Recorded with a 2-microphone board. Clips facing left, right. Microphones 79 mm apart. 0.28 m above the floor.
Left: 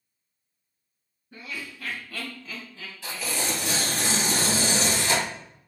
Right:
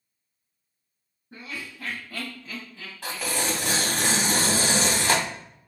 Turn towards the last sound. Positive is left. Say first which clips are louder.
# right 2 dB
turn(degrees=-60)  # may be behind; listen again after turning